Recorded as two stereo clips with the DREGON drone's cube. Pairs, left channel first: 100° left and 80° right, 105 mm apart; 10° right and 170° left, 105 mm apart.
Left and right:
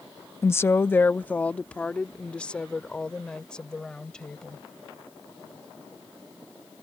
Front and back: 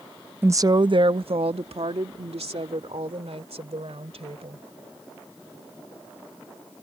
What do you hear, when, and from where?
0.4 s a woman speaking: 125° left; by 4.7 s 175° right